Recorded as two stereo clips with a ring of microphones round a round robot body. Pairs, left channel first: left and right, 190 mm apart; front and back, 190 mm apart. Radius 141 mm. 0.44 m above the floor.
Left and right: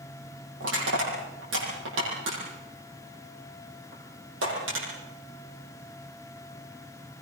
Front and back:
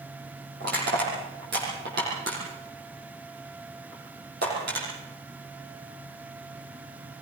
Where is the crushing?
125° right, 9 m.